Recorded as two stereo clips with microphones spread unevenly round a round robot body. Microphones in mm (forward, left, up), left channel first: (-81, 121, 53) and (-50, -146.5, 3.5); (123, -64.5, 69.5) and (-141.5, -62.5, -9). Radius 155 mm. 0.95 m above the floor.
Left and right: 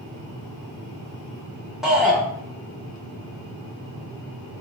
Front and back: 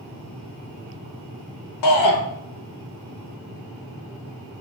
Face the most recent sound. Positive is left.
turn(degrees=0)